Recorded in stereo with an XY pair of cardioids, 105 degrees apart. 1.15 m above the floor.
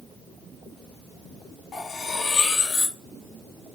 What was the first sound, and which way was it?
Cutlery clinking, 65° left.